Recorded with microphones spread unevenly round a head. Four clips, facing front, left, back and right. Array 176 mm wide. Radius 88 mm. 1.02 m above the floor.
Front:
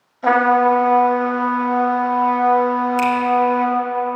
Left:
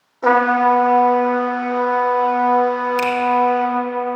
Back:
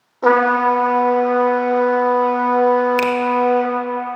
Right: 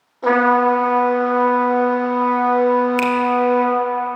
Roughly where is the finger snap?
Behind.